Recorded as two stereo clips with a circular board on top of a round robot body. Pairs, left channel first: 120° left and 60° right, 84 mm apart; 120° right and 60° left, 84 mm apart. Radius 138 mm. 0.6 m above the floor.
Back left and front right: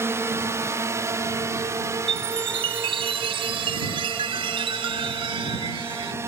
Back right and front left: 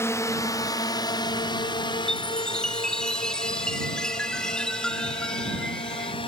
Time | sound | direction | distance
0.0 | a drone | 90° right | ?
2.1 | a chime | 35° right | ?